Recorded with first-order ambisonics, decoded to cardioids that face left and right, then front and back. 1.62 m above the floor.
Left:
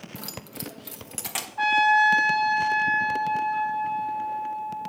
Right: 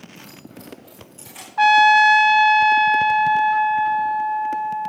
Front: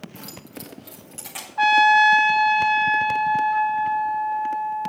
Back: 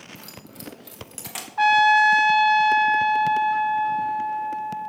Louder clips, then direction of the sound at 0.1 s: Left 3 dB, front 3 dB; 80° left.